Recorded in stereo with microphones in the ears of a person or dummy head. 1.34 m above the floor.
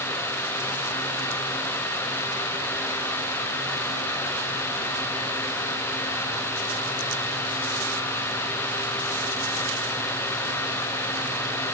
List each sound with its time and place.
Only background noise.